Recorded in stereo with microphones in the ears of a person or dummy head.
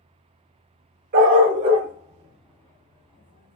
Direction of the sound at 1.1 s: 45° right (ahead or behind).